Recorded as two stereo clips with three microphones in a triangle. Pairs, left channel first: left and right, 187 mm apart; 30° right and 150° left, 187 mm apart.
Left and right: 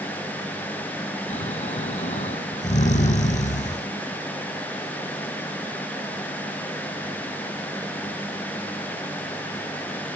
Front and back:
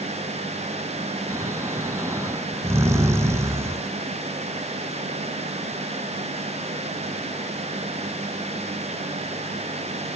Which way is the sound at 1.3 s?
85° left.